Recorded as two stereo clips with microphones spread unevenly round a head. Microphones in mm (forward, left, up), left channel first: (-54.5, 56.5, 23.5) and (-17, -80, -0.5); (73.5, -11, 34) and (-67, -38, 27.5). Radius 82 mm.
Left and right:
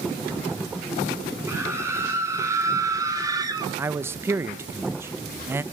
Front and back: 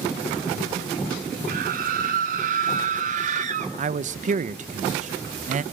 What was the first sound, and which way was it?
A scream, 145° right.